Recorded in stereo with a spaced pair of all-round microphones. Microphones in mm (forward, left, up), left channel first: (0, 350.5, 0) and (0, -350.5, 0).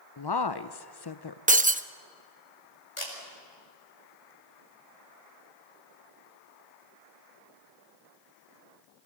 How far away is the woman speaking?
About 0.7 m.